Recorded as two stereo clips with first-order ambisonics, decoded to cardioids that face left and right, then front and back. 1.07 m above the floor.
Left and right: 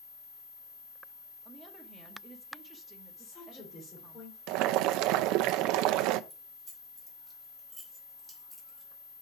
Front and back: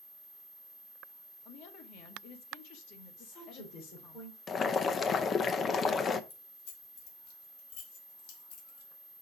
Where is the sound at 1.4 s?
15° right, 1.5 m.